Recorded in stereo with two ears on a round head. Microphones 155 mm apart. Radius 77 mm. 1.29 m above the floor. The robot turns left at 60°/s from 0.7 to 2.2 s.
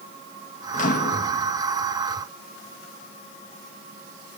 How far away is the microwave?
About 1.7 m.